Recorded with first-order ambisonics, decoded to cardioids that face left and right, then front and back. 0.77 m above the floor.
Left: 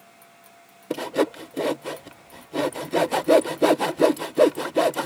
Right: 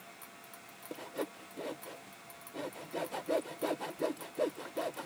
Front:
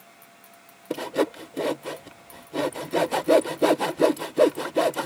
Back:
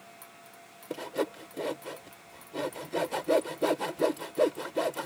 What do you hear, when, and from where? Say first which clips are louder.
0.9 s sawing: left 16 dB, front 7 dB; 65° left